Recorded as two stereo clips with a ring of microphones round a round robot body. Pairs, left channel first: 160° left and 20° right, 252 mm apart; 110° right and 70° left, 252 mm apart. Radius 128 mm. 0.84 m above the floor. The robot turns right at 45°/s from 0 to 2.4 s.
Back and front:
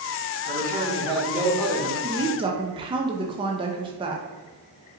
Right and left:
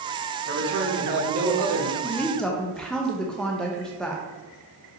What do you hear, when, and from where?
0.5 s a man speaking: 20° left, 1.2 m; by 1.9 s 85° left, 1.2 m
2.0 s a woman speaking: 50° right, 0.5 m; by 4.2 s 30° right, 0.5 m